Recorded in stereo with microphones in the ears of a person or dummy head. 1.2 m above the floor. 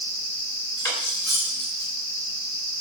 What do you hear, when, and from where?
0.8 s cutlery clinking: 20° left (ahead or behind), 2 m